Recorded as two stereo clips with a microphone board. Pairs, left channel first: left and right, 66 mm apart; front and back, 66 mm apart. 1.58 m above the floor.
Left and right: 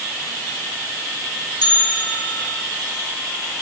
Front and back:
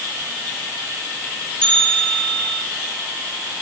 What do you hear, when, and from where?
1.6 s a bell: 75° left, 2 m